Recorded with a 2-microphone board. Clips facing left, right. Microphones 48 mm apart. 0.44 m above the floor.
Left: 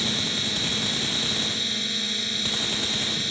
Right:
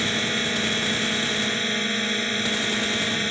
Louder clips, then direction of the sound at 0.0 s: Right 4 dB; 35° right (ahead or behind).